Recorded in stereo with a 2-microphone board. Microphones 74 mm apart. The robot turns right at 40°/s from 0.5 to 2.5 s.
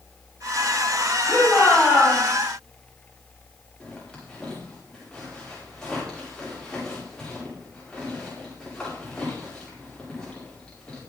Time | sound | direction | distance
1.3 | a shout | 145° left | 9 m
3.8 | a zipper | 10° left (ahead or behind) | 8.5 m